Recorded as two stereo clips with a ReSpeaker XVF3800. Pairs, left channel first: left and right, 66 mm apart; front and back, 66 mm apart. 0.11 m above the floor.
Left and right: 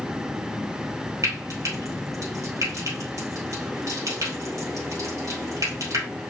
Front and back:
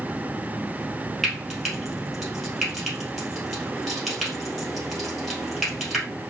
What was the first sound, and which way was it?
Frying, 90° right.